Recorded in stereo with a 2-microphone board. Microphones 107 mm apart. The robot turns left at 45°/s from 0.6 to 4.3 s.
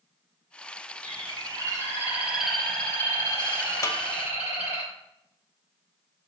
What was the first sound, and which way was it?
A bird, 115° right.